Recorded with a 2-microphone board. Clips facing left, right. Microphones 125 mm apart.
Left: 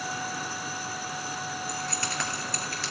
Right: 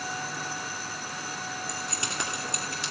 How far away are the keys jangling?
About 2 m.